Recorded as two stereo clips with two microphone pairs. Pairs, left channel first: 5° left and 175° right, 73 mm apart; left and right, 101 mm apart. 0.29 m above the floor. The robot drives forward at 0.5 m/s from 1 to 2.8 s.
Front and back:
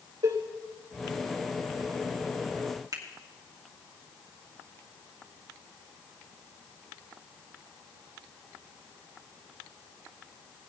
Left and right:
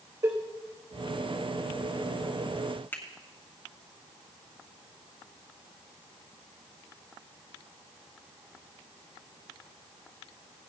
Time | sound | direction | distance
0.2 | a cowbell | 145° right | 3.5 m
2.9 | a finger snap | 160° left | 2.5 m